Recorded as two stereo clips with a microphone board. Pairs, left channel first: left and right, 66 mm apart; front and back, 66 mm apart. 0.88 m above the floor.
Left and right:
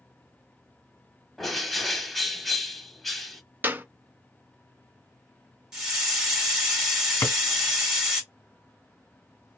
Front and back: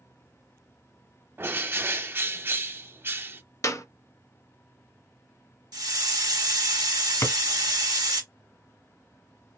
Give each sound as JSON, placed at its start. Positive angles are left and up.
{"t": 1.4, "sound": "a bird", "azimuth_deg": 180, "distance_m": 0.8}
{"t": 3.6, "sound": "a clap", "azimuth_deg": -30, "distance_m": 0.7}
{"t": 5.7, "sound": "a hiss", "azimuth_deg": -170, "distance_m": 1.8}
{"t": 7.2, "sound": "a drawer", "azimuth_deg": 30, "distance_m": 1.7}